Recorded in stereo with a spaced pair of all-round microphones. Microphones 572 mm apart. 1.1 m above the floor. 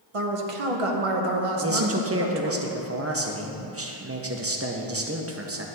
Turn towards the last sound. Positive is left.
turn(degrees=-25)  # may be behind; listen again after turning